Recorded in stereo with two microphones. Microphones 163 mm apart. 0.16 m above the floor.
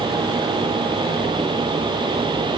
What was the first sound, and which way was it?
Only background noise.